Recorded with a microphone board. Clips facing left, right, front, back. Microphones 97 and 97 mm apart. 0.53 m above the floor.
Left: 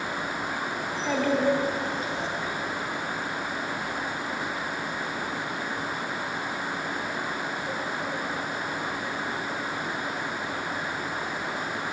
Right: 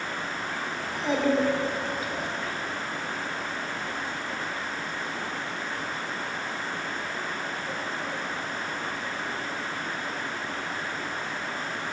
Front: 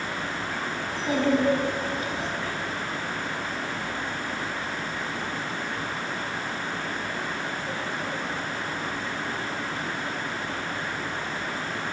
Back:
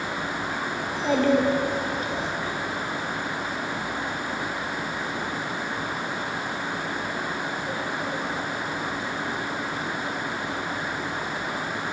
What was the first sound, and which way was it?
A child speaking, 170° right.